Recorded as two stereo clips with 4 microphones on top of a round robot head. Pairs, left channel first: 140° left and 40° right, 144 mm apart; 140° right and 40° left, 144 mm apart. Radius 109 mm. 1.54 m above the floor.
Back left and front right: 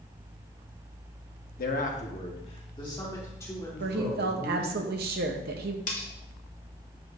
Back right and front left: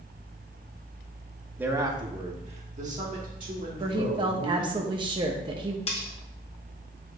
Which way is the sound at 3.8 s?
20° right.